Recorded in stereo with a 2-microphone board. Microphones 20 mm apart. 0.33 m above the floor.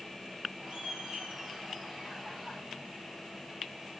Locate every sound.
0.6 s laughter: 60° right (ahead or behind), 9 m; by 2.6 s 50° right (ahead or behind), 9 m